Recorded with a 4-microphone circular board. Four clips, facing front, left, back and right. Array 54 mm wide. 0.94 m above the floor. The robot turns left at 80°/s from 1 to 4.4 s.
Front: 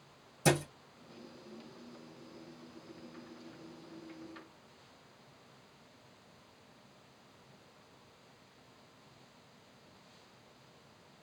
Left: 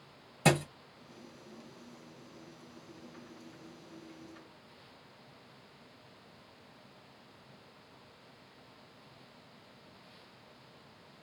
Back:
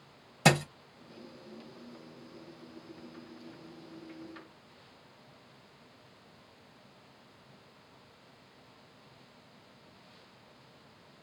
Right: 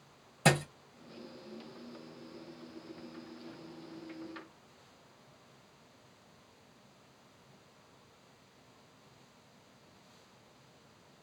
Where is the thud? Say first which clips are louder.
Even, back 5 dB; straight behind, 1.1 m.